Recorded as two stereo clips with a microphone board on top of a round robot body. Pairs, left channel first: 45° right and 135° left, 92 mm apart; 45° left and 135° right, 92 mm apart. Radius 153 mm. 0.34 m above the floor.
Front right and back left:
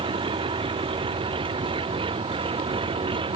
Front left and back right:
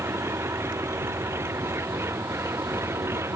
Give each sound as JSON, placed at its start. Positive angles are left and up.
{"t": 0.0, "sound": "an engine running", "azimuth_deg": 160}